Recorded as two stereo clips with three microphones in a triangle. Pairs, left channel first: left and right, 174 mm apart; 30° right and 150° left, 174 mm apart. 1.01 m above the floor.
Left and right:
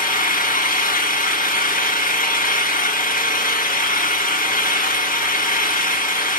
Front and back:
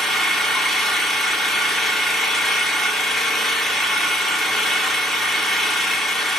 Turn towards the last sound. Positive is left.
turn(degrees=60)